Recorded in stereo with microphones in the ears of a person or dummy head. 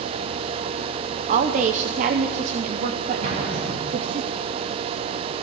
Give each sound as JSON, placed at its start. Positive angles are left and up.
{"t": 1.3, "sound": "a woman speaking", "side_deg": -45, "distance_m": 0.7}
{"t": 3.2, "sound": "an explosion", "side_deg": -40, "distance_m": 2.5}